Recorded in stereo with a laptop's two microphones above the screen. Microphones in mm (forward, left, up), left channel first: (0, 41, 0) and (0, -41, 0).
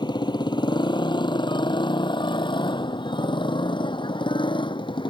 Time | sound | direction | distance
0.0 | a motorcycle | 65° left (ahead or behind) | ?